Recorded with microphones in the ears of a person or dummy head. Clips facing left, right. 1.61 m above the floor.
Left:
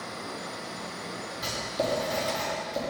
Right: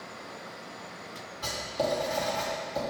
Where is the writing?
30° left (ahead or behind), 1.9 m.